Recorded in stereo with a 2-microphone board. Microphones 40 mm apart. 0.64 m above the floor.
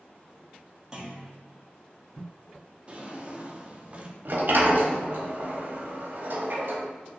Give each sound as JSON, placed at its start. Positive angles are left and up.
{"t": 0.9, "sound": "a clunk", "side_deg": -15, "distance_m": 0.9}
{"t": 2.9, "sound": "a drawer", "side_deg": -30, "distance_m": 0.5}
{"t": 4.2, "sound": "a sliding door", "side_deg": -55, "distance_m": 0.7}